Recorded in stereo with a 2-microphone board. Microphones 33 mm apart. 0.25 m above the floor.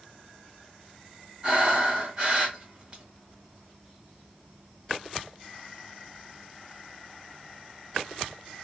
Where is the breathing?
25° right (ahead or behind), 1.5 m.